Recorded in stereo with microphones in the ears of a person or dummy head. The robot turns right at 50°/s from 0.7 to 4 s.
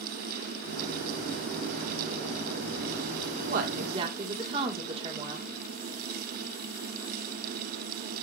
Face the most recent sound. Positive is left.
turn(degrees=-35)  # may be behind; listen again after turning